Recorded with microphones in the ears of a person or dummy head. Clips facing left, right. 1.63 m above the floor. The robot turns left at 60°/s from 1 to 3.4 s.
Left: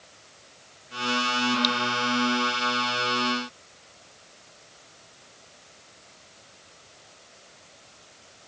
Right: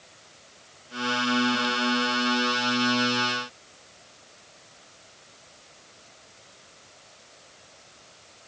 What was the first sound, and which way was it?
Only background noise.